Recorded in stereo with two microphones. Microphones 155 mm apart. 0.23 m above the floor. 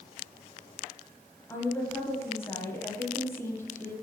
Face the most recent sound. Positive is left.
turn(degrees=15)  # may be behind; listen again after turning